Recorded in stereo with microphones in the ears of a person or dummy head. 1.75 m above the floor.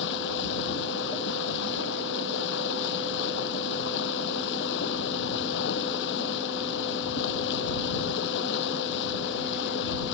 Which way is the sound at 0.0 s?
70° left (ahead or behind).